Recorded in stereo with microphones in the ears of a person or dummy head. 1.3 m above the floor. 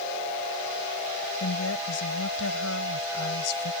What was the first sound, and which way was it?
A woman speaking, 85° left.